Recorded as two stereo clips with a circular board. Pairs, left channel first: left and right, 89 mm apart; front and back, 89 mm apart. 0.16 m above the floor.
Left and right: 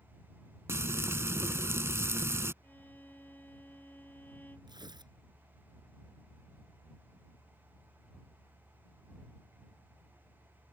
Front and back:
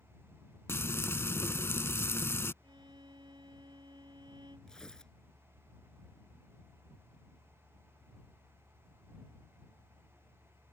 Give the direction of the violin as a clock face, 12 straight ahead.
7 o'clock.